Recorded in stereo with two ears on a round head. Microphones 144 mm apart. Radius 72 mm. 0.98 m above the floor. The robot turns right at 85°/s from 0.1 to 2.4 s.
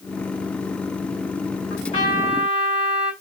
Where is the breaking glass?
No breaking glass in this recording.